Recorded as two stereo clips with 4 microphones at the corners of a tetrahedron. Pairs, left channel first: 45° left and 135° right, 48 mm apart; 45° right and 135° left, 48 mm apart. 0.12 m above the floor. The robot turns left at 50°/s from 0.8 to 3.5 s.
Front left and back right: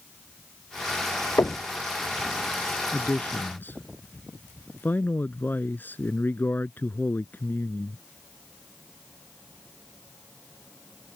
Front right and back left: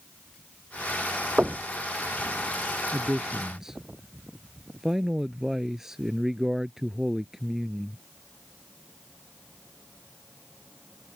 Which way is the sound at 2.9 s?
85° left.